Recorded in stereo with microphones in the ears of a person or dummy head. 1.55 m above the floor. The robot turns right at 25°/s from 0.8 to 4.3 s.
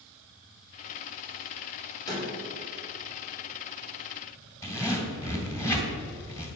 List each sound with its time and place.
2.1 s a door slam: 20° left (ahead or behind), 3 m; by 2.3 s 25° left (ahead or behind), 3 m
4.6 s a zipper: 10° left (ahead or behind), 2.5 m